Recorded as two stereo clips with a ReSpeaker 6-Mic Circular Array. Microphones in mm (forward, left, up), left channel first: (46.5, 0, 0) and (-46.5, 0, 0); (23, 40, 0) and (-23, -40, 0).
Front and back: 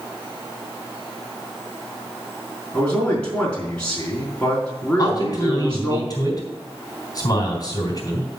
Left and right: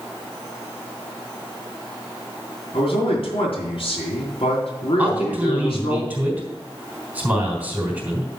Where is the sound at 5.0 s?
50° right, 4 m.